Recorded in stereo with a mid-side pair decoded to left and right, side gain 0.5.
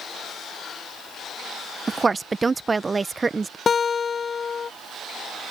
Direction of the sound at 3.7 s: 35° left.